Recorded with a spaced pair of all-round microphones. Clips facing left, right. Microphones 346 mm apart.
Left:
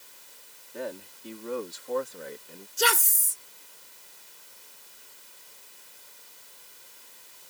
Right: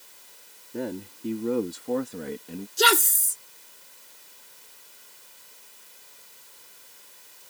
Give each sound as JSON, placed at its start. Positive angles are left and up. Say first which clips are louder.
{"t": 0.7, "sound": "a man speaking", "louder": "right 5 dB", "side_deg": -55}
{"t": 2.8, "sound": "a woman speaking", "louder": "right 5 dB", "side_deg": -80}